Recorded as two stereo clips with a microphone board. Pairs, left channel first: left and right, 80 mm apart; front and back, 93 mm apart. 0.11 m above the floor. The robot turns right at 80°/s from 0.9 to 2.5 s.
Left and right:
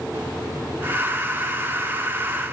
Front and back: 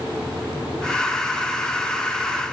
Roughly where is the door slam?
I don't hear a door slam.